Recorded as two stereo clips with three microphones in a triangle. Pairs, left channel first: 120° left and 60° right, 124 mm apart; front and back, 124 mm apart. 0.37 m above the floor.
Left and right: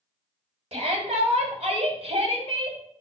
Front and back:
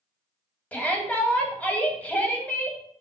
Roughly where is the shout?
Right.